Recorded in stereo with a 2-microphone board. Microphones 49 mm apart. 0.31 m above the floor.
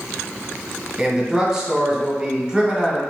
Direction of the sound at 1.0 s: 10° right (ahead or behind).